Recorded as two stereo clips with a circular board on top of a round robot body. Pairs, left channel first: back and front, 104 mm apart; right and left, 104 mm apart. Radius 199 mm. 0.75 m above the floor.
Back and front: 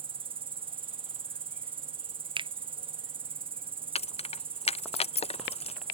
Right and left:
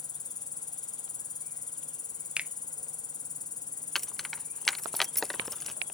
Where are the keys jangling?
Straight behind.